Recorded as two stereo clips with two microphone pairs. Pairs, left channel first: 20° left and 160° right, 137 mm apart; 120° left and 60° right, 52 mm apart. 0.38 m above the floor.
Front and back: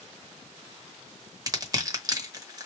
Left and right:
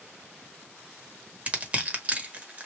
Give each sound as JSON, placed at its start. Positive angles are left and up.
{"t": 1.5, "sound": "crushing", "azimuth_deg": -110, "distance_m": 0.9}